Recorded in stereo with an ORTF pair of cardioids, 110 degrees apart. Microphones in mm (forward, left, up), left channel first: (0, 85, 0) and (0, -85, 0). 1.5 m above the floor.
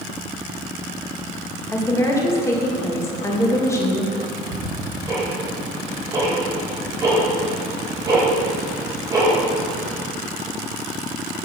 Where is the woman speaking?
15° left, 2 m.